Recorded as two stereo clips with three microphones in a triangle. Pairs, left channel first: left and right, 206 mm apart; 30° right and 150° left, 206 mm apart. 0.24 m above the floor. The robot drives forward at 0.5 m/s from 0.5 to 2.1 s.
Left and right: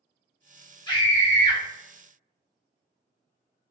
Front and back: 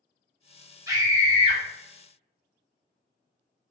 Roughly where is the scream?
Left.